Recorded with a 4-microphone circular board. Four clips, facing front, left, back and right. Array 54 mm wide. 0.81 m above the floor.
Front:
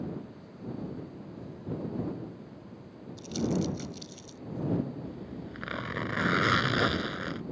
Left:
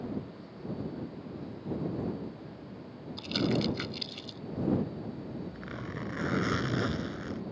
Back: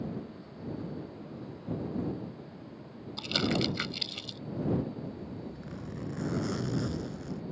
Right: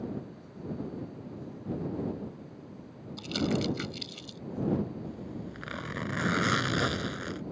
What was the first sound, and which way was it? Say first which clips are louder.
Crumpling: even, even; 175° left.